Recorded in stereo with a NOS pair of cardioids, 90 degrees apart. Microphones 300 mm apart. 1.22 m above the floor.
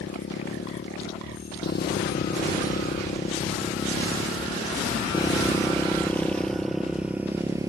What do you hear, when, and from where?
0.0 s a motorcycle: 40° left; by 7.7 s 10° right